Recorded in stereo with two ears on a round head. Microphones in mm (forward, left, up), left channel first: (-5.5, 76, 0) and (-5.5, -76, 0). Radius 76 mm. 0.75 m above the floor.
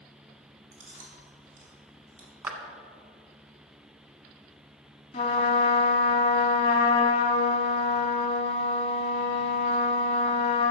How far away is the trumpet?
About 1.0 m.